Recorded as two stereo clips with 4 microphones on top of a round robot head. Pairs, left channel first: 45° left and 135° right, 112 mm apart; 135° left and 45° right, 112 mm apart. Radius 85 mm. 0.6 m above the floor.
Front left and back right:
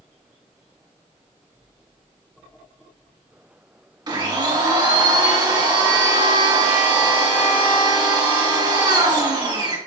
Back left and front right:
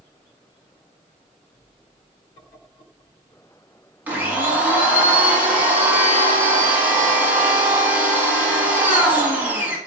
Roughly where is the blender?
Right.